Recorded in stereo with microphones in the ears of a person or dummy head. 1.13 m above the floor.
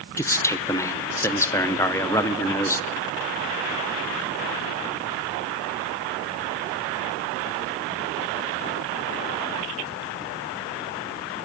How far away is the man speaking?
About 0.5 m.